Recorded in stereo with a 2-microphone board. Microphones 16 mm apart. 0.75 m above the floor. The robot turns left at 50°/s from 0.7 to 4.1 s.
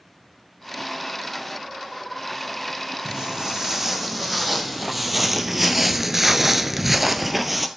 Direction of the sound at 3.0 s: 55° right (ahead or behind).